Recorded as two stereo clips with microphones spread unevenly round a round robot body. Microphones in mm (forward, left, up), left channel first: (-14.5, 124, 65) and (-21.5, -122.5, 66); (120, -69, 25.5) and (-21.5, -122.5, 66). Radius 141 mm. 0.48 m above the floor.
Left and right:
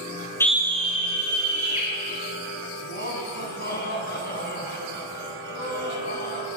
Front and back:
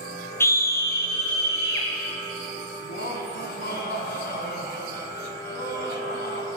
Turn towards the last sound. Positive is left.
turn(degrees=35)